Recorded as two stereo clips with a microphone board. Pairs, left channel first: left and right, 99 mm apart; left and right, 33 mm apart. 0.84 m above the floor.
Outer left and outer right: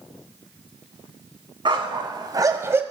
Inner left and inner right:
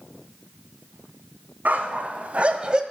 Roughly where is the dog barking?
Right.